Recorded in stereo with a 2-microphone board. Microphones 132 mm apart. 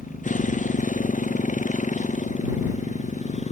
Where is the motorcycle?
75° left (ahead or behind); by 3.5 s 60° left (ahead or behind).